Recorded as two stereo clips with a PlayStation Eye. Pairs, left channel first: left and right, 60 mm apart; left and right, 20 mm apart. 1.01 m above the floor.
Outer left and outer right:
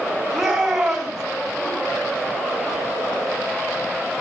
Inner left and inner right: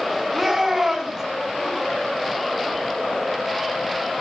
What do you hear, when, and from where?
0.3 s a shout: 5° right (ahead or behind), 6 m